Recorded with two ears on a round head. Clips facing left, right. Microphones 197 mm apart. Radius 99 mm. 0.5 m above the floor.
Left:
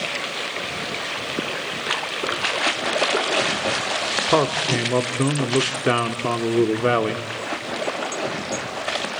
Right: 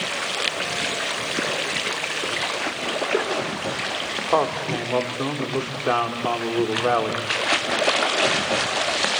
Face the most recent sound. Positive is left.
turn(degrees=35)  # may be behind; listen again after turning